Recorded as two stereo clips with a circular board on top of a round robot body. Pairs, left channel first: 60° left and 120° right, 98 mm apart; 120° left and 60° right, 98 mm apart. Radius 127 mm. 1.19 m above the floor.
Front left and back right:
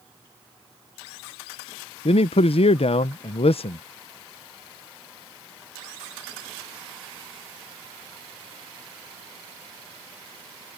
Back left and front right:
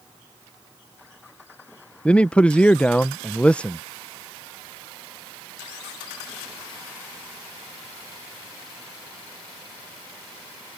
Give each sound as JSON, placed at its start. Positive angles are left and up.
{"t": 2.0, "sound": "a man speaking", "azimuth_deg": 40}